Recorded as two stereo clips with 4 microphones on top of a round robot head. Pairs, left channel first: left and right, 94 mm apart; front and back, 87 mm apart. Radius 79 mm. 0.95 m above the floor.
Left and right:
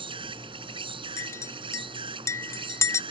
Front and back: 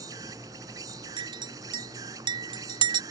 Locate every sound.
0.0 s an insect: 120° right
1.2 s a clink: 150° left